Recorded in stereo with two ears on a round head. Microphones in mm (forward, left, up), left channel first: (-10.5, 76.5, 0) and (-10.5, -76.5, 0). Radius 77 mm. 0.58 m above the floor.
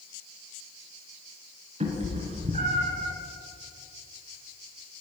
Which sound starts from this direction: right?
A cat meowing, at 1.8 s.